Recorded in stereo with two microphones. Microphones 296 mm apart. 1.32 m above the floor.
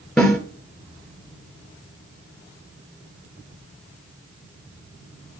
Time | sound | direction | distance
0.2 | a snare drum | centre (ahead or behind) | 2.5 m